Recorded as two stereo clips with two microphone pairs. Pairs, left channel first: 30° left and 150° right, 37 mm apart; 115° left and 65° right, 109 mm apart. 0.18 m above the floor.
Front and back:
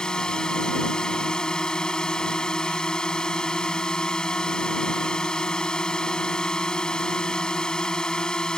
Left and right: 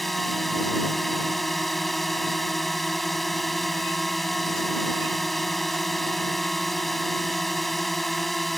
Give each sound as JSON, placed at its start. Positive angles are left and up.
{"t": 0.0, "sound": "a drone", "azimuth_deg": 30}